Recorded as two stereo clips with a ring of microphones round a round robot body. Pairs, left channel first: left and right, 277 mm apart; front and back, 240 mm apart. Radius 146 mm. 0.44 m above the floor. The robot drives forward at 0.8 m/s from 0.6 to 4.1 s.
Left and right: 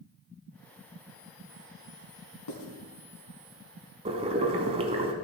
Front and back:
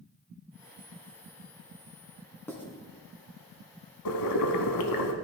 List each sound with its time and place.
2.5 s writing: 80° left, 3 m; by 2.6 s 85° left, 3 m
4.0 s boiling: 20° right, 1.1 m